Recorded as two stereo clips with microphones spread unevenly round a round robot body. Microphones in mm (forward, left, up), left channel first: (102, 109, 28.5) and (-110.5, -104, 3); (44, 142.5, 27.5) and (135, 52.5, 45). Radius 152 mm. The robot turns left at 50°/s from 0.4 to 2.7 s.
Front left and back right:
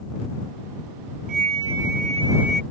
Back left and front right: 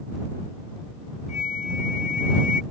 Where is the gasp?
I don't hear a gasp.